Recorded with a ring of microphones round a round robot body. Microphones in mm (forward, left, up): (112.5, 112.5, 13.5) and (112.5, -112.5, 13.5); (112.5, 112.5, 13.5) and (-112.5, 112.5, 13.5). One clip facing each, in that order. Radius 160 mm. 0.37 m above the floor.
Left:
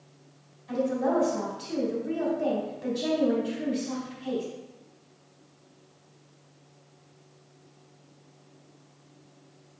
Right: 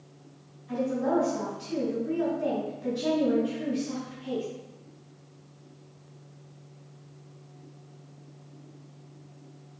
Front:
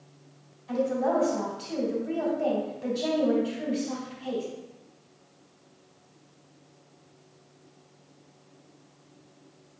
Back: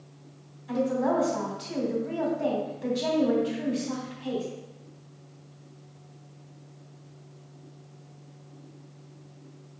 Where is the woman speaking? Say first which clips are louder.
Left 1 dB, even; 110° left, 3 m.